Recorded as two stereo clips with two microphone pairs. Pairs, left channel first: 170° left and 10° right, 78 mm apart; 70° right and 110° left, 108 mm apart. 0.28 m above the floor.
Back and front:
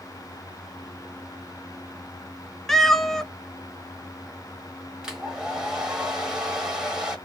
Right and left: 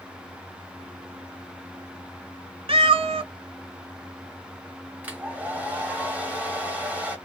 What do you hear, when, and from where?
2.7 s a cat meowing: 80° left, 0.5 m
5.0 s a hair dryer: 55° left, 1.3 m